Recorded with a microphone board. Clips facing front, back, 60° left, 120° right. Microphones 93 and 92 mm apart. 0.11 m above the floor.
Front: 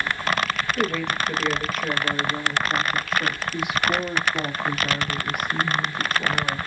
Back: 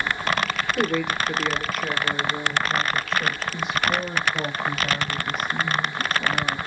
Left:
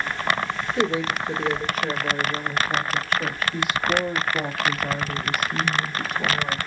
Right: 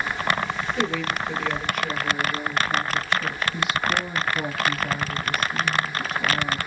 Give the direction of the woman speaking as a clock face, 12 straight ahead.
8 o'clock.